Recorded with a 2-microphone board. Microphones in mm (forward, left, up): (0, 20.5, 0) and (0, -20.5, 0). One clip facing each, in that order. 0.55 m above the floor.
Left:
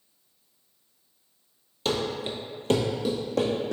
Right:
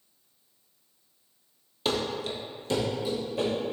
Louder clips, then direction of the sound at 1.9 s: Left 1 dB; 10° right (ahead or behind).